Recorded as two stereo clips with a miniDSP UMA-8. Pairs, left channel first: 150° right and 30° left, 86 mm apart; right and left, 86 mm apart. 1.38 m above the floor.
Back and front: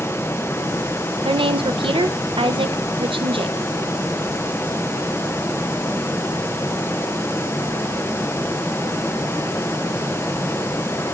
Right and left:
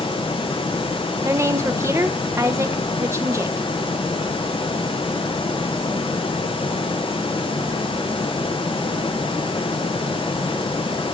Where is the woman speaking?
30° left, 0.9 m.